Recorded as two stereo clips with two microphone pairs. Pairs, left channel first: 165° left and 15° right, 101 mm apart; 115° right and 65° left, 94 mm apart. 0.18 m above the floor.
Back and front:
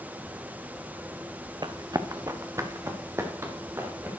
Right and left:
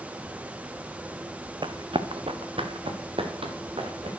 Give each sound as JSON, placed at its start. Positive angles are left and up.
{"t": 1.6, "sound": "running footsteps", "azimuth_deg": 30, "distance_m": 0.8}